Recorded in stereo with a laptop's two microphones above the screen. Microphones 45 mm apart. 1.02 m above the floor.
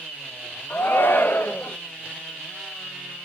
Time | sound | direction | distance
0.7 | a shout | 50° left (ahead or behind) | 0.8 m